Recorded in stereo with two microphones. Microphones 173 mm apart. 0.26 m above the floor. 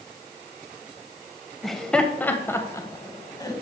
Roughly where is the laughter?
Centre.